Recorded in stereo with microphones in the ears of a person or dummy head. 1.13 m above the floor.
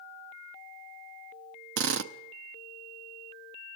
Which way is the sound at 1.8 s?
65° right (ahead or behind).